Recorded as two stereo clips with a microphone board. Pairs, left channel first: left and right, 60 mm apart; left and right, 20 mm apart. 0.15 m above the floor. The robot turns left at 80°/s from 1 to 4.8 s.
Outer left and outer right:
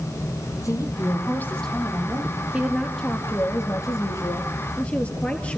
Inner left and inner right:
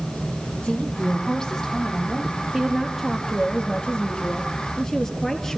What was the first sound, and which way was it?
A woman speaking, 65° left.